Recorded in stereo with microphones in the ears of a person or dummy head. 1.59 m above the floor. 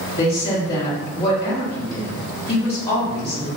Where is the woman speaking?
25° left (ahead or behind), 1.0 m.